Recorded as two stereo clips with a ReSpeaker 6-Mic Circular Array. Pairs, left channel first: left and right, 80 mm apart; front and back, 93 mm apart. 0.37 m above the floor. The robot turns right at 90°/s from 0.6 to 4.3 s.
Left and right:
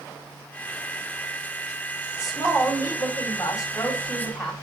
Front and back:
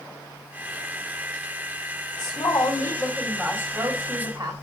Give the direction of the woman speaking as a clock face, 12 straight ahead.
12 o'clock.